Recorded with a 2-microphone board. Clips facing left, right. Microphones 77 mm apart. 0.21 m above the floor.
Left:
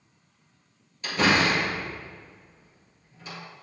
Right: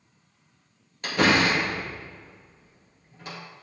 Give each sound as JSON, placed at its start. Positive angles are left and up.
{"t": 1.0, "sound": "a door slam", "side_deg": -60, "distance_m": 2.5}